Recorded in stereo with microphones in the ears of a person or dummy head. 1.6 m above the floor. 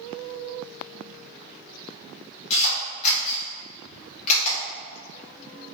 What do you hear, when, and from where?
2.5 s a camera shutter: 40° left (ahead or behind), 1.0 m